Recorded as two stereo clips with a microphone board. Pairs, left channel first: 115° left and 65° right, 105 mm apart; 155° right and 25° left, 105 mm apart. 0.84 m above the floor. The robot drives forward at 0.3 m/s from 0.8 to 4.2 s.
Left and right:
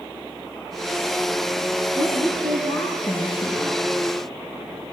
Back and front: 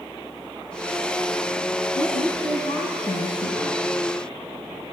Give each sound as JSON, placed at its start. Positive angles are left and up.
{"t": 1.9, "sound": "a woman speaking", "azimuth_deg": 150, "distance_m": 7.0}